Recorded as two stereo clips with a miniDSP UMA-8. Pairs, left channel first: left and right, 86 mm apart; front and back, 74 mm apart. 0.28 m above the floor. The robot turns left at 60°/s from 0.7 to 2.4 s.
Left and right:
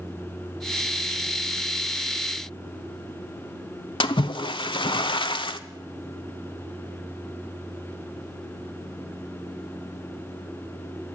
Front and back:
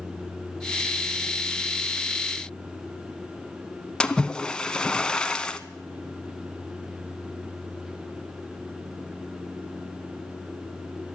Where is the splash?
75° left, 0.6 m.